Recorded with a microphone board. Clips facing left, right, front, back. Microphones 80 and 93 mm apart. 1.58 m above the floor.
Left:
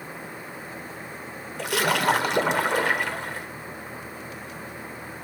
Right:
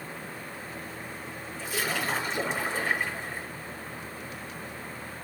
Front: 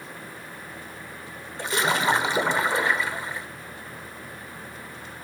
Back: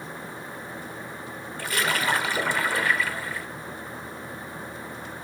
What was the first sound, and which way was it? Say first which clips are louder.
A splash: left 8 dB, front 3 dB; 70° left.